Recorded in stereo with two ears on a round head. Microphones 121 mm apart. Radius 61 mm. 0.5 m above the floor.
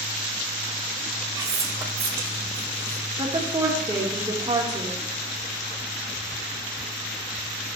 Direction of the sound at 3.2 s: 25° right (ahead or behind).